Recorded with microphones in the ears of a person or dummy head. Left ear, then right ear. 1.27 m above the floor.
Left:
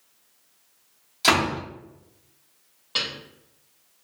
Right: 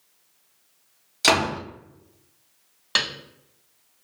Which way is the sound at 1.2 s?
20° right (ahead or behind).